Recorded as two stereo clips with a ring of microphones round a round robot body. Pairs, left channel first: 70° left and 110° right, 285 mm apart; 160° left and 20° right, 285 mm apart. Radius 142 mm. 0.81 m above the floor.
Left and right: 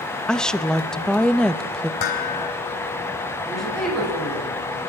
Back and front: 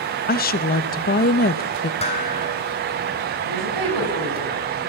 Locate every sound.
0.3 s a woman speaking: 155° left, 0.8 m
2.0 s dishes clattering: 90° left, 3.5 m
3.5 s a woman speaking: 20° right, 7 m